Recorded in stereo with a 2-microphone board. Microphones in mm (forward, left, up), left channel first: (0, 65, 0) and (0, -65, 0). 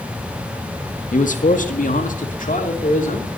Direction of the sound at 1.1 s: 80° left.